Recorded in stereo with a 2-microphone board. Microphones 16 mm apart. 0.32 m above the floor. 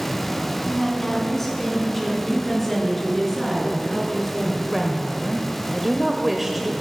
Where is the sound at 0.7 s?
20° left (ahead or behind), 2.5 m; by 2.1 s 5° left (ahead or behind), 3 m.